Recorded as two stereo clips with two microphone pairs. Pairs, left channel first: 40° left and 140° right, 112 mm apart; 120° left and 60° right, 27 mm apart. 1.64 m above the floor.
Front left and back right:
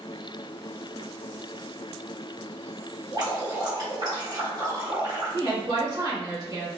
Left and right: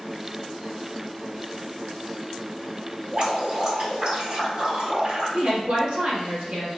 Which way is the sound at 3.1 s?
100° right.